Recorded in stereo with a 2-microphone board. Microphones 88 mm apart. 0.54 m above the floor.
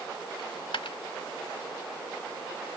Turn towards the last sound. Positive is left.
turn(degrees=75)  # may be behind; listen again after turning